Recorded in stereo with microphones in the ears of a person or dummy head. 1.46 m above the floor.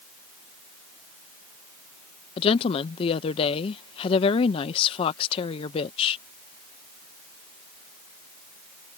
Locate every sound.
2.4 s a woman speaking: 30° left (ahead or behind)